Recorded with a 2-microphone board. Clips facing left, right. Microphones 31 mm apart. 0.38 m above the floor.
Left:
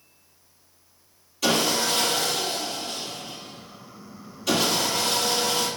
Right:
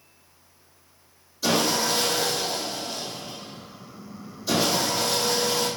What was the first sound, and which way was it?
Sawing, 80° left.